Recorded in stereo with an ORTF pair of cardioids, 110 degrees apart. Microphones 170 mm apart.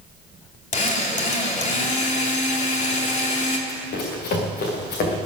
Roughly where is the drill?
Ahead left.